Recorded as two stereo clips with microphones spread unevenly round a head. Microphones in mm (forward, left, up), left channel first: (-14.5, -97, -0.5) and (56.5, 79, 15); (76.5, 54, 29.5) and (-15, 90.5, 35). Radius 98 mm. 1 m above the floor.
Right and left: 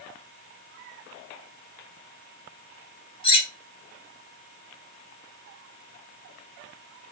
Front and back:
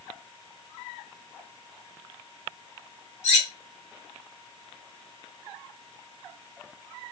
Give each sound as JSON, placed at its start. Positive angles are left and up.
{"t": 3.2, "sound": "cutlery clinking", "azimuth_deg": -45, "distance_m": 0.8}